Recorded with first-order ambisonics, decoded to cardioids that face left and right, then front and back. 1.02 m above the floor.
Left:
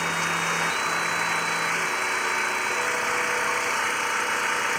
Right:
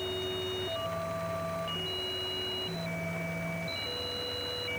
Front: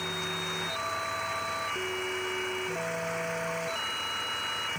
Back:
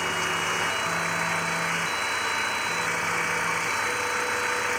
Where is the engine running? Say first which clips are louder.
Left 10 dB, back 7 dB; 120° left.